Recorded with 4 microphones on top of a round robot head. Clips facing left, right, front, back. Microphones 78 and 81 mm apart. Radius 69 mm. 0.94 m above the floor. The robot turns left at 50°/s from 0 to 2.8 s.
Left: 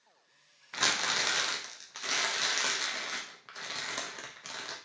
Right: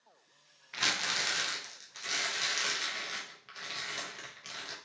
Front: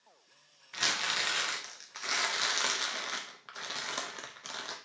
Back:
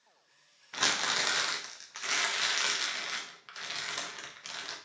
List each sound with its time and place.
0.7 s crumpling: 145° left, 1.0 m; by 4.8 s 40° left, 1.0 m